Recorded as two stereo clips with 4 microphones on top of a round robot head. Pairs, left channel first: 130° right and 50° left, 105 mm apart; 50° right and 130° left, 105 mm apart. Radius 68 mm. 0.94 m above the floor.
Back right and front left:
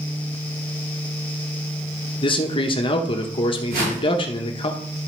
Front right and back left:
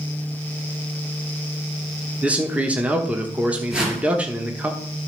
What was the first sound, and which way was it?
A man speaking, 155° right.